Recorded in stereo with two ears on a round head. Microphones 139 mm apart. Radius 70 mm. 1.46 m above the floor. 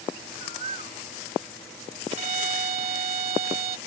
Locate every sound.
0.4 s a bird: 40° right (ahead or behind)
2.1 s a violin: 40° right (ahead or behind)